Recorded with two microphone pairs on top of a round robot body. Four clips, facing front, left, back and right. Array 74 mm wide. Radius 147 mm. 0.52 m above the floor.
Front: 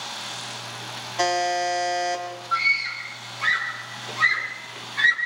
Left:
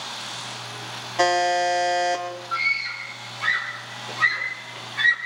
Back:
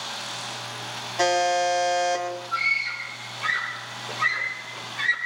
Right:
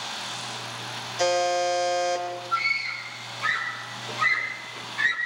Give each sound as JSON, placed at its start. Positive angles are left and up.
{"t": 1.2, "sound": "a buzzer", "azimuth_deg": 70, "distance_m": 5.0}
{"t": 2.5, "sound": "a scream", "azimuth_deg": 20, "distance_m": 10.0}